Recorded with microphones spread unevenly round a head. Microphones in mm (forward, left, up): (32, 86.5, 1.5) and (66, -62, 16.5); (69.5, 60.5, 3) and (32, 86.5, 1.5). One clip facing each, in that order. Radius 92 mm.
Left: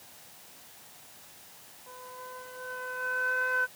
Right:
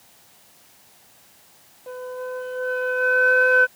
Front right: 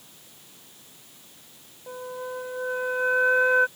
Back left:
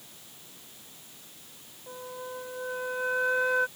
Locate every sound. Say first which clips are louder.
1.9 s a flute: right 15 dB, front right 5 dB; 115° right